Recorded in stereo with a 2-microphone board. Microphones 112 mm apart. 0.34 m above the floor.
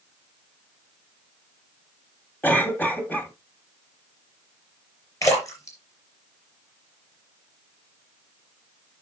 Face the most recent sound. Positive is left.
turn(degrees=30)  # may be behind; listen again after turning